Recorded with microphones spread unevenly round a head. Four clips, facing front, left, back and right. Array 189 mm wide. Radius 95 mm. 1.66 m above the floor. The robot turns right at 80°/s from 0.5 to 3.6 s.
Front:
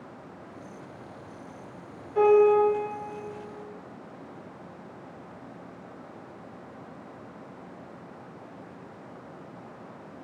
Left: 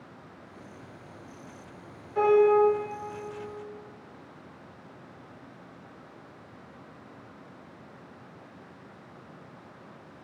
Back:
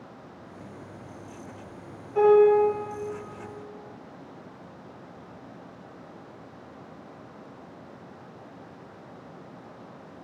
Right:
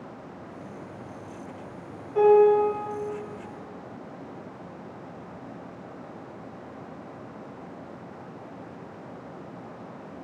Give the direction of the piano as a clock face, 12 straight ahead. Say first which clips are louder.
Right 3 dB, back 1 dB; 4 o'clock.